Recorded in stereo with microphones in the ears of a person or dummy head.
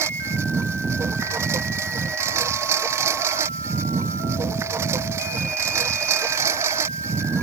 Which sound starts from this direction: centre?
A lawn mower, at 0.0 s.